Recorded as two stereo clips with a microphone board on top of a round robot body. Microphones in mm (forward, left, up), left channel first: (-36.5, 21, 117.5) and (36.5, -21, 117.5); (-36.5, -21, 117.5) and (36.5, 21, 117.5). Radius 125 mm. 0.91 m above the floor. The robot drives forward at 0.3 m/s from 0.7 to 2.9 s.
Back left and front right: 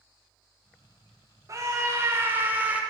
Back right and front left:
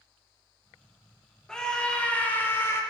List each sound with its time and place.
1.5 s a scream: 70° right, 1.1 m; by 2.8 s 100° right, 1.1 m